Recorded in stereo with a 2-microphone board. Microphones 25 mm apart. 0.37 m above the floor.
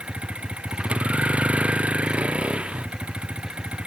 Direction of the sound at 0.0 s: 50° right (ahead or behind).